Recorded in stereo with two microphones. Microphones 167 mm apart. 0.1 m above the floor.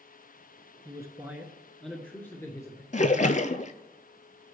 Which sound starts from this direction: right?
A man speaking, at 0.8 s.